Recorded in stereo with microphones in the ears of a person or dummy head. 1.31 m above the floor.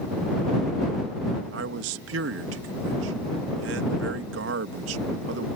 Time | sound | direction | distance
1.5 | a man speaking | 80° right | ?